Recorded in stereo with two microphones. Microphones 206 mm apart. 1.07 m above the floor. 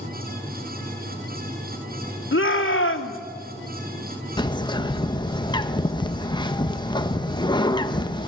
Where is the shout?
80° left, 2.5 m.